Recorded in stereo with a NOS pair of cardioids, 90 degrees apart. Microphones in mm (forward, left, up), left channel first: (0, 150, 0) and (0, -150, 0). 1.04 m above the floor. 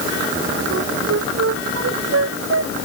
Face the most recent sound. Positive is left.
turn(degrees=-50)